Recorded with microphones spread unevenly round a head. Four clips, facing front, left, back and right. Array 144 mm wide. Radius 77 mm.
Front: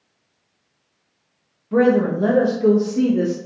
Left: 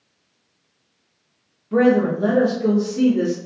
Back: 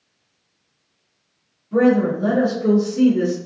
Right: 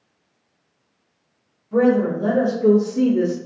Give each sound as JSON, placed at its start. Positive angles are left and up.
{"t": 1.7, "sound": "a woman speaking", "azimuth_deg": 60, "distance_m": 1.0}